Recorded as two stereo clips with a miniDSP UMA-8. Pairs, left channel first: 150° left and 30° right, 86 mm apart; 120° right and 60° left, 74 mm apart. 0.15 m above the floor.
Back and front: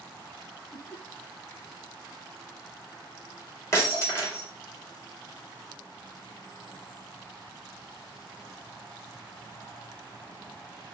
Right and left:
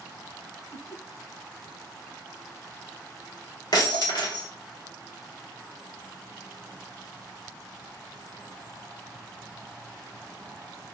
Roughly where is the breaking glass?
Behind right.